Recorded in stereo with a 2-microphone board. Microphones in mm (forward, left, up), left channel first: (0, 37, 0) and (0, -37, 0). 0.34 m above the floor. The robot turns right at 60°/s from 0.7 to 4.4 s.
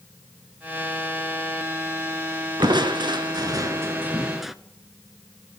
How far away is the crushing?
About 0.6 m.